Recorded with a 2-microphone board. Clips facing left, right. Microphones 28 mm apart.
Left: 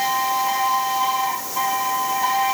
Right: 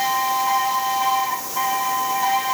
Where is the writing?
I don't hear writing.